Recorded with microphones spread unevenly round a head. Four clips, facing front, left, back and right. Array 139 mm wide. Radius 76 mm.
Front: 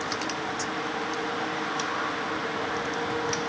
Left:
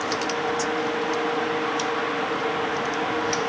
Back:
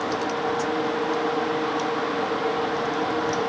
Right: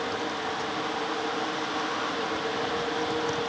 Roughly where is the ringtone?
I don't hear a ringtone.